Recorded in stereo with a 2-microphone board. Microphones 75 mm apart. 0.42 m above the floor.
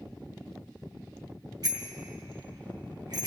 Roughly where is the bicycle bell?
Right.